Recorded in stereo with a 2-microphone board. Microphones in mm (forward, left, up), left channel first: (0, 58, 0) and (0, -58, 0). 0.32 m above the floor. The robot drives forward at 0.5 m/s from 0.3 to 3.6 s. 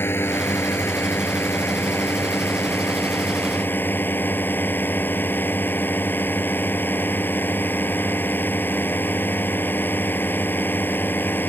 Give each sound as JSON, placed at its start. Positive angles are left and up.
{"t": 0.0, "sound": "a drone", "side_deg": 20}